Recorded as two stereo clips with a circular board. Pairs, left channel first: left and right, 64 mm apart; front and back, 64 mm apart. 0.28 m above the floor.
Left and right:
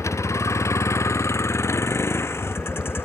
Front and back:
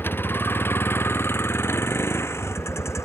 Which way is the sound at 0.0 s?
55° left.